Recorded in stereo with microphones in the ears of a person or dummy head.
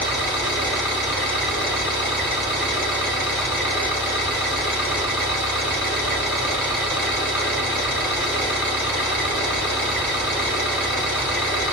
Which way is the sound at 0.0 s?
25° right (ahead or behind).